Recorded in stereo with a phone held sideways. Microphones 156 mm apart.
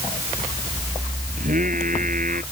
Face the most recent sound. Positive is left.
turn(degrees=-60)  # may be behind; listen again after turning